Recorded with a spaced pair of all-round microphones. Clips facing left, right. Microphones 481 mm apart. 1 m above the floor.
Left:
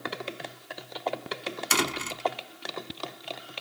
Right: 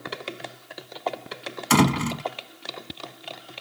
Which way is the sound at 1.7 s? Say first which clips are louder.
Right 13 dB; 75° right (ahead or behind).